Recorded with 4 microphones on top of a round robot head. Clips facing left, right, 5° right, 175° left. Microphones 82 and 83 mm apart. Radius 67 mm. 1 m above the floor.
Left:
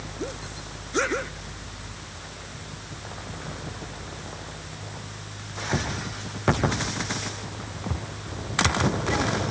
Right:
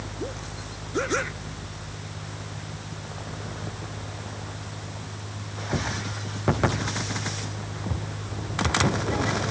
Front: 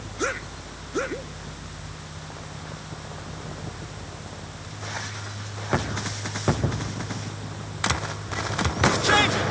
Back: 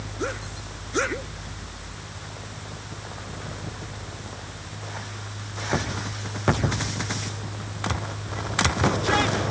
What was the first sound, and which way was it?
Only background noise.